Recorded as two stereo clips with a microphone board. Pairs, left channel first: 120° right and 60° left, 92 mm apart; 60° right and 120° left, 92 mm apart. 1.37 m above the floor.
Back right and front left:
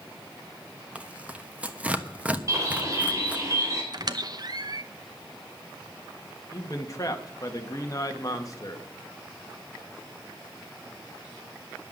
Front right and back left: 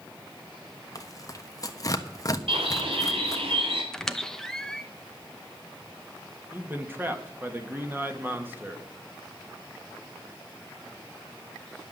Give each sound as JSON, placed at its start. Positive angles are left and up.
{"t": 0.9, "sound": "tearing paper", "azimuth_deg": -15, "distance_m": 1.0}
{"t": 2.5, "sound": "a bird", "azimuth_deg": 115, "distance_m": 3.5}
{"t": 3.9, "sound": "a squeak", "azimuth_deg": 25, "distance_m": 0.8}
{"t": 6.5, "sound": "a man speaking", "azimuth_deg": -175, "distance_m": 1.8}